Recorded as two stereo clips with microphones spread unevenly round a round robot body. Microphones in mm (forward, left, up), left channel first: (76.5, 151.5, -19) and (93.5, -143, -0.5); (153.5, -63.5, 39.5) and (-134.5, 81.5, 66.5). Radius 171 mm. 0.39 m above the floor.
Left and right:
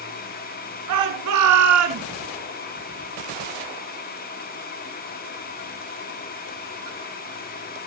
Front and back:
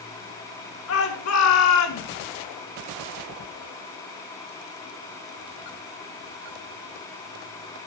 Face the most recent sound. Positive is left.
turn(degrees=-55)